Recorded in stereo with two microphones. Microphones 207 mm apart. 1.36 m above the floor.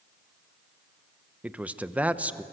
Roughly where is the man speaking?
Centre.